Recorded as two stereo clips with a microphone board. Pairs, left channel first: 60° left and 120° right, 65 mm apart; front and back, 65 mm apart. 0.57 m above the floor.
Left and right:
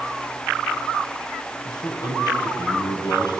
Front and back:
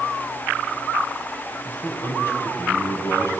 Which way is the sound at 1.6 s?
60° left.